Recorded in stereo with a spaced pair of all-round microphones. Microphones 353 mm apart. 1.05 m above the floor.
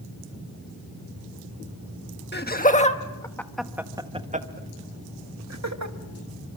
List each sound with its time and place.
2.3 s laughter: 30° left (ahead or behind), 1.5 m; by 6.0 s 50° right (ahead or behind), 1.6 m